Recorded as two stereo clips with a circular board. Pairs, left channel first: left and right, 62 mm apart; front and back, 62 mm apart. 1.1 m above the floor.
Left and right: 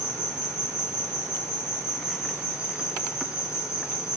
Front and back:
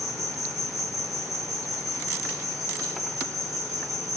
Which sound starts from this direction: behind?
An insect, at 0.0 s.